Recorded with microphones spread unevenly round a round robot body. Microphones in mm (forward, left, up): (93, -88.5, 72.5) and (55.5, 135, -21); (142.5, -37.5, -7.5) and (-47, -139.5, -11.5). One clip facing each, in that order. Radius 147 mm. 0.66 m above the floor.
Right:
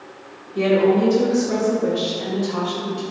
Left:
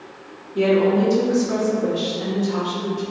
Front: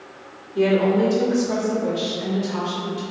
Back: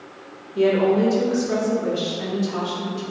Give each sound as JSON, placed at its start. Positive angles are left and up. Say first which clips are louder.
{"t": 0.6, "sound": "a woman speaking", "louder": "even, even", "azimuth_deg": 95, "distance_m": 0.9}